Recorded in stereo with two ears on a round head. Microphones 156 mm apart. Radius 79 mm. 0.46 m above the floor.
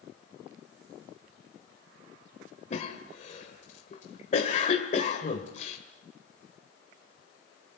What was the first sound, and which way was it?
A cough, 45° left (ahead or behind).